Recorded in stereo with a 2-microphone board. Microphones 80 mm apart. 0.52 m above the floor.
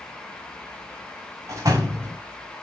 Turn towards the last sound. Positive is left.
turn(degrees=-40)  # may be behind; listen again after turning